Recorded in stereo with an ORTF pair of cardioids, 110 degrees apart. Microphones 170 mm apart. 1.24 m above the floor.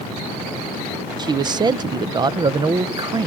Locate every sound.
1.2 s a man speaking: 25° right, 0.5 m